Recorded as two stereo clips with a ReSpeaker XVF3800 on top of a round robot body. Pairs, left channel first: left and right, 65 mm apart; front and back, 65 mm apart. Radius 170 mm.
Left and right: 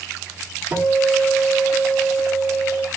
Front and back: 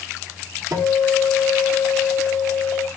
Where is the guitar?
160° right, 2 m.